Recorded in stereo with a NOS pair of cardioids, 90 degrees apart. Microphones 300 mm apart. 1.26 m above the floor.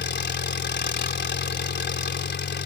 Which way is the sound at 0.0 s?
35° left.